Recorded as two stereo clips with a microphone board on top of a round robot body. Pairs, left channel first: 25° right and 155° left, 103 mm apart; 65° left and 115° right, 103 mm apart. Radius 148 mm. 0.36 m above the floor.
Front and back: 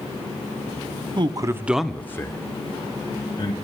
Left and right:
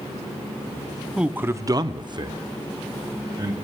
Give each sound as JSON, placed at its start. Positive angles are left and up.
{"t": 1.2, "sound": "a man speaking", "azimuth_deg": 165, "distance_m": 1.0}